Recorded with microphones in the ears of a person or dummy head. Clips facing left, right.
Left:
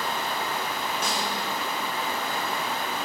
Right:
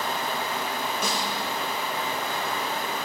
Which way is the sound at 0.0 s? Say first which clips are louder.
Right 1 dB; 25° right (ahead or behind).